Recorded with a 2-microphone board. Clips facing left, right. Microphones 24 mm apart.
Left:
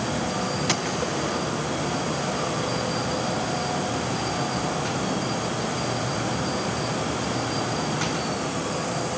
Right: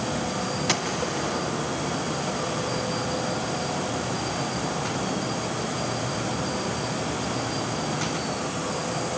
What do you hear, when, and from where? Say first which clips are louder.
0.7 s a gunshot: left 1 dB; centre (ahead or behind), 2.5 m